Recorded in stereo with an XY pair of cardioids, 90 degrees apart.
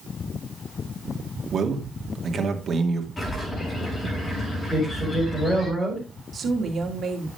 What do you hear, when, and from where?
1.5 s a man speaking: 45° right, 2 m
3.2 s a bird: 35° left, 6 m
4.7 s a man speaking: 30° left, 6 m
6.3 s a woman speaking: 50° right, 2.5 m